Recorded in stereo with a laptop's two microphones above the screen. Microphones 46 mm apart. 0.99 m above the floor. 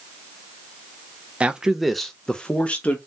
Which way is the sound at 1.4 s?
25° right (ahead or behind).